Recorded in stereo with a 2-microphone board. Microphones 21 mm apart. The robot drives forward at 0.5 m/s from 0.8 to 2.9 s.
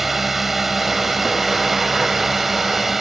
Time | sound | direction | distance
0.0 | a drone | 10° right (ahead or behind) | ?